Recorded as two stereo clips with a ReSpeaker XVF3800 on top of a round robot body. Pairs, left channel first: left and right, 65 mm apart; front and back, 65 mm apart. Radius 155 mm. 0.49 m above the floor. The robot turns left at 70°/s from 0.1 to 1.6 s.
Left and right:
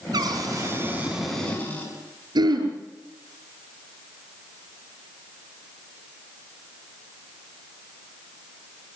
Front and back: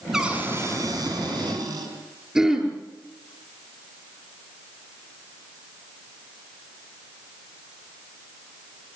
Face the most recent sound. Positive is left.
turn(degrees=-100)